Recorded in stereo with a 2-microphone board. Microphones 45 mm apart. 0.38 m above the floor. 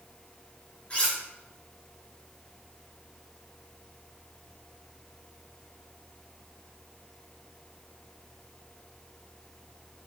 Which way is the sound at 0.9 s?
30° left (ahead or behind).